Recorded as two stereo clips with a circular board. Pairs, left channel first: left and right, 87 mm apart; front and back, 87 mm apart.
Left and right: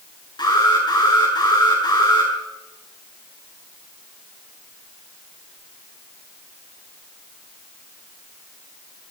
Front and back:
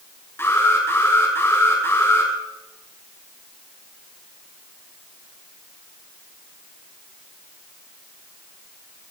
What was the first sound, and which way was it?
An alarm, 60° left.